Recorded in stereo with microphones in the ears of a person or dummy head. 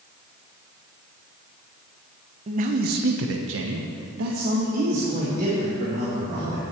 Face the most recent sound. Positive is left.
turn(degrees=-35)  # may be behind; listen again after turning